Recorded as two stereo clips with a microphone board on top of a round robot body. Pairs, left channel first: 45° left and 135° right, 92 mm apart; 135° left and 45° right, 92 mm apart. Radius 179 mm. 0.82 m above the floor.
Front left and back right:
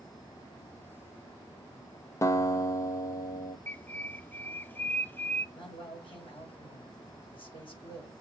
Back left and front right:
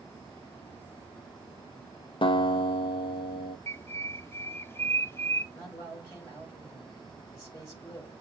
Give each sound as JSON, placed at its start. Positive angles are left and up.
{"t": 2.2, "sound": "a guitar", "azimuth_deg": 105, "distance_m": 0.6}
{"t": 3.7, "sound": "a bird", "azimuth_deg": 95, "distance_m": 0.7}
{"t": 5.5, "sound": "a man speaking", "azimuth_deg": 75, "distance_m": 5.0}